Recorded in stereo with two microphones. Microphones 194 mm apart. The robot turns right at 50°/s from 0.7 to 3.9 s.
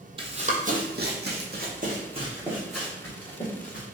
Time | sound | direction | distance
0.2 | running footsteps | 25° right (ahead or behind) | 0.6 m